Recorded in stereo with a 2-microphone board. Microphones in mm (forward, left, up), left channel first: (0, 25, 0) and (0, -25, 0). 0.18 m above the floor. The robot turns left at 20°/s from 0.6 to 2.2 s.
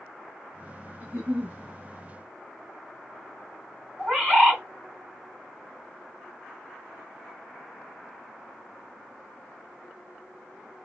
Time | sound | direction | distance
1.0 | a giggle | 30° right (ahead or behind) | 1.0 m
4.0 | a bird | 15° right (ahead or behind) | 1.9 m